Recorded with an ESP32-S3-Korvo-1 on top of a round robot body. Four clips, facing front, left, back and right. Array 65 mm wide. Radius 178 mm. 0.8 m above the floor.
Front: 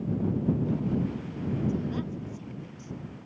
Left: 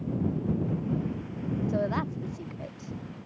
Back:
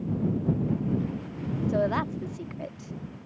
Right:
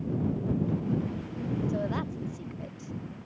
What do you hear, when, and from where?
1.7 s a woman speaking: 160° left